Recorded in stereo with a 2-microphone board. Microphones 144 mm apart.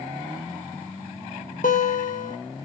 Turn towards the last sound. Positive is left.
turn(degrees=70)  # may be behind; listen again after turning